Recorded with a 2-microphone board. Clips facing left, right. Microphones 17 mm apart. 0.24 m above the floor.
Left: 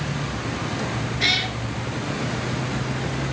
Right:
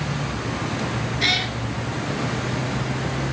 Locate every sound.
1.2 s a cat meowing: centre (ahead or behind), 1.8 m